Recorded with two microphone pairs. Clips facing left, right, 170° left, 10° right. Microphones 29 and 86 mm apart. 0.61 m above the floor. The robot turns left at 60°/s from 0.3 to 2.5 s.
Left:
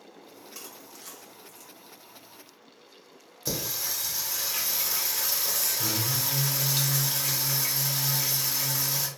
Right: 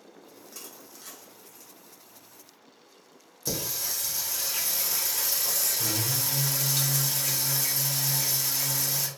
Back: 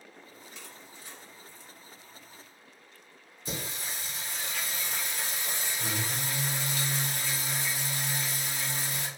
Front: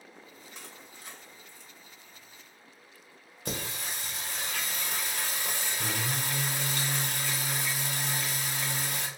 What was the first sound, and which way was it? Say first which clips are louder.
Crushing: left 1 dB, front 1 dB; 35° left.